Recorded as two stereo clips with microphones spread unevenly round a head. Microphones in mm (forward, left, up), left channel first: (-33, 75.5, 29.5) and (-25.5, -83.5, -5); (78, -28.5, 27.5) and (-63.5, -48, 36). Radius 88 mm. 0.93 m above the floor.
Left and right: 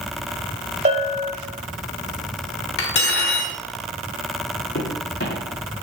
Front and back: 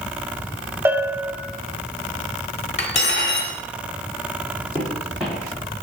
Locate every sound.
0.8 s a bell: 120° right, 0.6 m
2.8 s cutlery clinking: 60° left, 1.2 m
4.8 s footsteps: 105° left, 2.5 m